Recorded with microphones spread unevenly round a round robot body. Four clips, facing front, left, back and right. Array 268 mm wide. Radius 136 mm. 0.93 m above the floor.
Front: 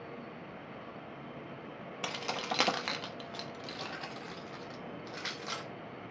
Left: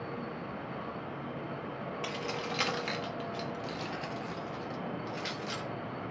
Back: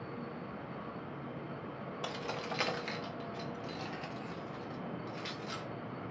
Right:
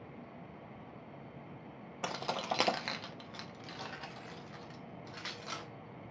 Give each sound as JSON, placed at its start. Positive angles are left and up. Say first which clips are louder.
{"t": 2.0, "sound": "keys jangling", "louder": "right 3 dB, front 3 dB", "azimuth_deg": -60, "distance_m": 0.6}